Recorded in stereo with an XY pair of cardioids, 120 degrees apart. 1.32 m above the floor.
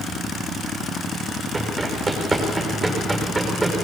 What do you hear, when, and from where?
1.5 s running footsteps: 10° right, 6 m